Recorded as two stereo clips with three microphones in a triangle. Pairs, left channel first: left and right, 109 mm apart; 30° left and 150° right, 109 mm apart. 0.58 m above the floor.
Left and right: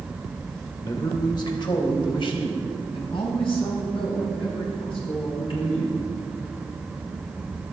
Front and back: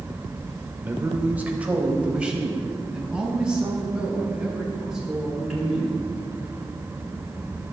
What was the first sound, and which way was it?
A man speaking, 140° left.